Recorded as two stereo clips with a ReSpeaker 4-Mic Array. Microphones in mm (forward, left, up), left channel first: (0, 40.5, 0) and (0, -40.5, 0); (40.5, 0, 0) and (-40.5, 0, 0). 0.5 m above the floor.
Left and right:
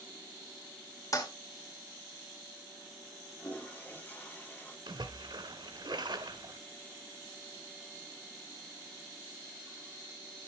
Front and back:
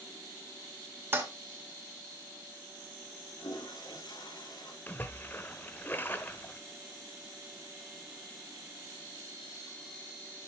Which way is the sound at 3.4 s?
20° left.